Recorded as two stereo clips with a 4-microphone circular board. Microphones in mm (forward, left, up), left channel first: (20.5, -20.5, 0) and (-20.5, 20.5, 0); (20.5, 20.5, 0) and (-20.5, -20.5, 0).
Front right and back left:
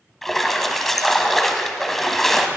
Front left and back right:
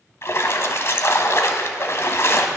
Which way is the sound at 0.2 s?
40° left.